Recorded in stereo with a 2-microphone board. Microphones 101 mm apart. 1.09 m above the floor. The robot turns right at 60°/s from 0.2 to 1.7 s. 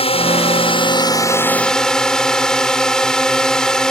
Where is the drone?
85° left; by 3.9 s 175° left.